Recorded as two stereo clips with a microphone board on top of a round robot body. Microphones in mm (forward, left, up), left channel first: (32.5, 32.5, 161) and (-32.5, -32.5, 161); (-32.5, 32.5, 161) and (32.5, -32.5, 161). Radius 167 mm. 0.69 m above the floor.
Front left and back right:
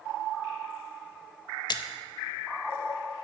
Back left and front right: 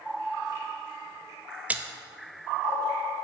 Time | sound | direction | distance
1.7 | a splash | 25° left | 0.7 m